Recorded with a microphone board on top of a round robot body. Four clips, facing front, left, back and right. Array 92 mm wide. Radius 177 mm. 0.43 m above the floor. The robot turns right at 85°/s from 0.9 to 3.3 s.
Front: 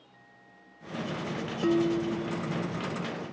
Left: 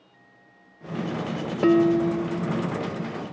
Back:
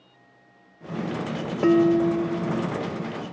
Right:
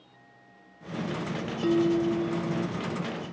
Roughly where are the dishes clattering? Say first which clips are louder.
Left 5 dB, back 8 dB; behind left.